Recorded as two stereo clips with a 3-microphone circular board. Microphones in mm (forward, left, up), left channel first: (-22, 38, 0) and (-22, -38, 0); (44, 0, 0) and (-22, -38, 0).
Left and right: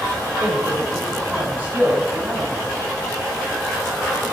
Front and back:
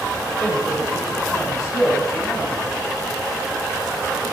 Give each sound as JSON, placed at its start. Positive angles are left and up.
{"t": 0.4, "sound": "a man speaking", "azimuth_deg": -15, "distance_m": 3.5}